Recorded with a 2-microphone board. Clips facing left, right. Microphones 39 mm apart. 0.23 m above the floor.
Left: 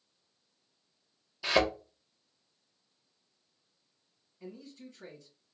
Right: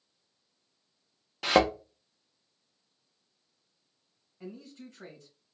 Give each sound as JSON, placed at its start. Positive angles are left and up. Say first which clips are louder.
{"t": 1.4, "sound": "a thud", "louder": "right 4 dB", "side_deg": -70, "distance_m": 0.9}
{"t": 4.4, "sound": "a man speaking", "louder": "right 2 dB", "side_deg": -60, "distance_m": 2.0}